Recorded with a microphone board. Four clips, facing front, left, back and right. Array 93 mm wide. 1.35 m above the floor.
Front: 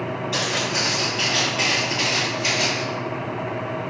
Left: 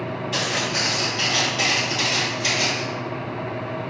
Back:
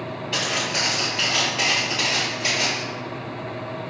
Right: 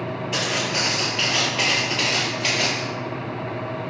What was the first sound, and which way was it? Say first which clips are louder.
Footsteps: even, back 1 dB; 150° right.